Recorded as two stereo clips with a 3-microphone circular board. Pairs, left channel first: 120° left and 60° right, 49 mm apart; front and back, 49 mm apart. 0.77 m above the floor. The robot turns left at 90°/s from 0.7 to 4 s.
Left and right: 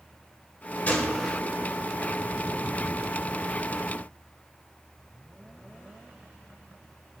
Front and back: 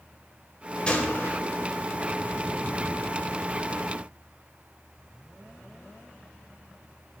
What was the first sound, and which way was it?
A gunshot, 70° left.